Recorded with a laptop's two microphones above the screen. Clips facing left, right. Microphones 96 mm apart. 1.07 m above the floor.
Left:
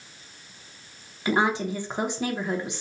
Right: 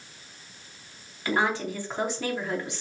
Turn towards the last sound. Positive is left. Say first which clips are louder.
# left 2 dB
turn(degrees=20)  # may be behind; listen again after turning